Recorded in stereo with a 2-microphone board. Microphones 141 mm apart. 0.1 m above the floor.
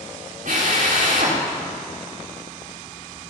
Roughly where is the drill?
Right.